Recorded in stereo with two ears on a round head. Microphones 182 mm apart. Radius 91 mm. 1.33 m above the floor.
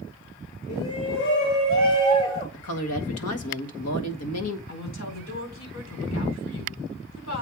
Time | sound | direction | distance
0.7 | a shout | 85° left | 1.8 m
2.5 | a woman speaking | 85° left | 1.9 m
4.7 | a woman speaking | 65° left (ahead or behind) | 4.5 m